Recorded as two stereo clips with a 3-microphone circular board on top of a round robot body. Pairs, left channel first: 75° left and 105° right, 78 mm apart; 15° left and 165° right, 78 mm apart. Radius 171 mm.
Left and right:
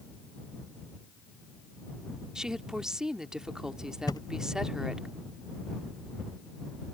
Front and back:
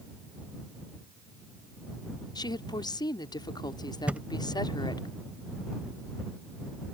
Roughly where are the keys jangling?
I don't hear keys jangling.